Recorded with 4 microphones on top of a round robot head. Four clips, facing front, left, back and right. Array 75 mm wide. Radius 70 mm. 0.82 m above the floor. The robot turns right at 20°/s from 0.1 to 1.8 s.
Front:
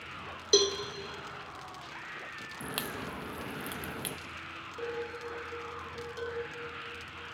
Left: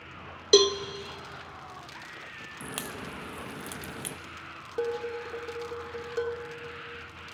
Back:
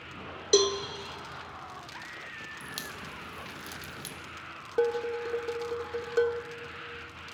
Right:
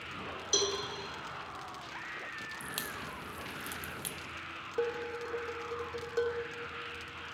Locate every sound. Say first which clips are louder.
0.5 s a cowbell: left 13 dB, back 3 dB; 100° left, 0.8 m; by 0.8 s 105° left, 0.8 m
2.6 s a crack: left 2 dB, front 3 dB; 35° left, 0.8 m
4.8 s dishes clattering: left 3 dB, back 10 dB; straight behind, 1.6 m